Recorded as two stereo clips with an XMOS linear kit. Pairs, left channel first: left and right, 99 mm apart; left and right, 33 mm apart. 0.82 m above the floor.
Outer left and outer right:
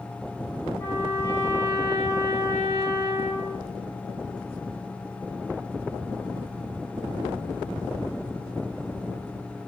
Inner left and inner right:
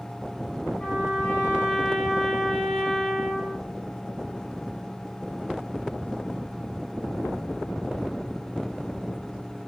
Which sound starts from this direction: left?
A trumpet, at 0.8 s.